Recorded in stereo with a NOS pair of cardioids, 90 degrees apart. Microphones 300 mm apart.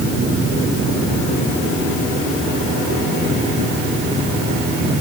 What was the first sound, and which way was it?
Only background noise.